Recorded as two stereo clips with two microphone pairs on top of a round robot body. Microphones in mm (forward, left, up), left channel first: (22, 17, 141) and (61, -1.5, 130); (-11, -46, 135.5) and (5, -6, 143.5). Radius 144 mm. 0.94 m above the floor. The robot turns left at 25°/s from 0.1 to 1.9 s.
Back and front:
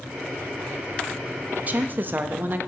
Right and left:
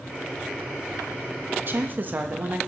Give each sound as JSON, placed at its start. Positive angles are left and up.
{"t": 1.7, "sound": "a woman speaking", "azimuth_deg": 25, "distance_m": 1.1}